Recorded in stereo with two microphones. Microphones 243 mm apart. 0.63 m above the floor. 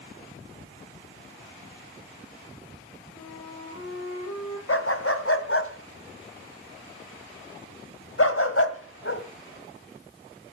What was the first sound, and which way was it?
A flute, 75° left (ahead or behind).